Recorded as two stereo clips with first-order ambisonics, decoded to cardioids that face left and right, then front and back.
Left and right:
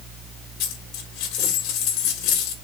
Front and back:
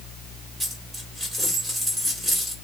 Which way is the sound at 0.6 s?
80° left.